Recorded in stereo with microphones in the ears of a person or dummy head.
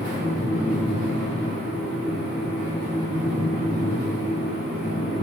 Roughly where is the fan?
Left.